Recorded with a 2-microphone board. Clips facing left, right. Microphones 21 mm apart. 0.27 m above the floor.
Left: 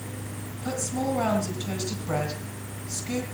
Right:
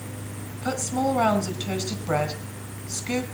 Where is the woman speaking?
35° right (ahead or behind), 2 m.